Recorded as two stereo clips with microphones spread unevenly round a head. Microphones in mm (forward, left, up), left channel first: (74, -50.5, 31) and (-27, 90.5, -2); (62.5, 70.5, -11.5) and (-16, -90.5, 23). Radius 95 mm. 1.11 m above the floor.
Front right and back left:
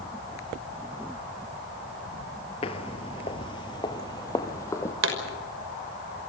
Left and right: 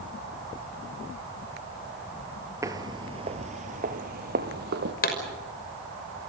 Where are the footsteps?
70° right, 1.3 m; by 4.9 s 125° right, 2 m.